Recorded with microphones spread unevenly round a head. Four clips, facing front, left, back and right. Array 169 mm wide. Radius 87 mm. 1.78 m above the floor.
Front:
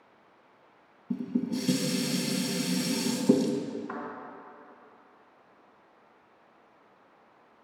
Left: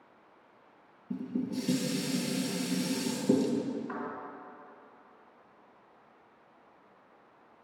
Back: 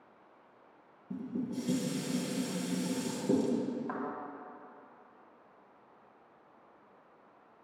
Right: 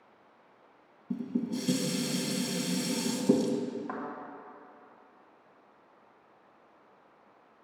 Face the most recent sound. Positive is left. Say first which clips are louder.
# even, front 1 dB
turn(degrees=-145)